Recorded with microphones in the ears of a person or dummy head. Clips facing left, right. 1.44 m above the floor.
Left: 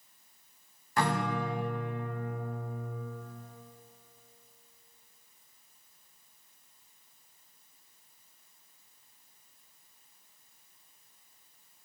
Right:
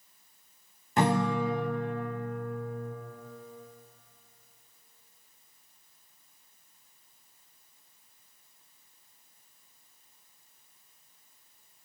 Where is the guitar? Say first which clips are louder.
Right 4 dB; 15° right (ahead or behind), 0.9 m.